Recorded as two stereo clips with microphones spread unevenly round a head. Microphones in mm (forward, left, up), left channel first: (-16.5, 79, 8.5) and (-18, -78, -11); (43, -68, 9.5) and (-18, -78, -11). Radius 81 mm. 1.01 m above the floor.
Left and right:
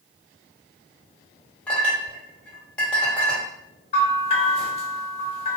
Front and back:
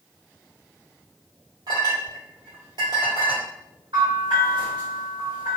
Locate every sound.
1.7 s a clink: 175° left, 1.1 m
3.9 s a bell: 140° left, 0.6 m